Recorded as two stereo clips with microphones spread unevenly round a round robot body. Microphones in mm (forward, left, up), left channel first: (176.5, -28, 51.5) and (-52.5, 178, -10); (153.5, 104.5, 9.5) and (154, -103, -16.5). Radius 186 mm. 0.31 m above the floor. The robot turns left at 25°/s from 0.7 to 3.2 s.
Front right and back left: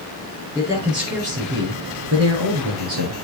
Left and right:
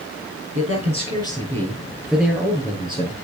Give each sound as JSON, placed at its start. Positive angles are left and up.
{"t": 0.6, "sound": "a man speaking", "azimuth_deg": -140, "distance_m": 5.5}